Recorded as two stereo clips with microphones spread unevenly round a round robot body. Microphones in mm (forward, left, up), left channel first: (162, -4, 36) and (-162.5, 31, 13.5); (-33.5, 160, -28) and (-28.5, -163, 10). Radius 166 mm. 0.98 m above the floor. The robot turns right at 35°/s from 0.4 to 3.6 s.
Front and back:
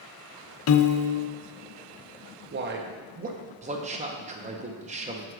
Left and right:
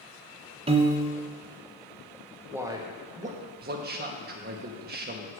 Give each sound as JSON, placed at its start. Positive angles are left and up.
{"t": 0.7, "sound": "a piano", "azimuth_deg": -20, "distance_m": 0.7}
{"t": 2.5, "sound": "a man speaking", "azimuth_deg": 180, "distance_m": 0.9}